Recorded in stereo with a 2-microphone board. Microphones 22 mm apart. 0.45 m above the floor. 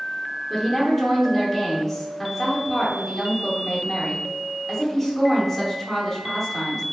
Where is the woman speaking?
5° left (ahead or behind), 0.7 m.